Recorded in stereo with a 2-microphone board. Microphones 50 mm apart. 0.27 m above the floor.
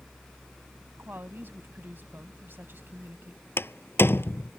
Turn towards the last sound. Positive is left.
turn(degrees=45)  # may be behind; listen again after turning